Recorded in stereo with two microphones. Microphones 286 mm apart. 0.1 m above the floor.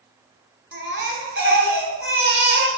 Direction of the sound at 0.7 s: 40° right (ahead or behind).